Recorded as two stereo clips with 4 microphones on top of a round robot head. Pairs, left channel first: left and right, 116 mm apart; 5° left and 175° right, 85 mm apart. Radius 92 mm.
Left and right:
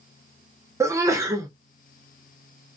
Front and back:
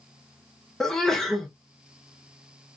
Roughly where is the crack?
No crack in this recording.